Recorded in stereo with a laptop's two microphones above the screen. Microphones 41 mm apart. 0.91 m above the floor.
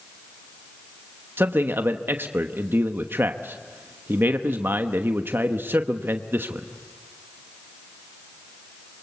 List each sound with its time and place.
1.4 s a man speaking: 65° right (ahead or behind), 1.0 m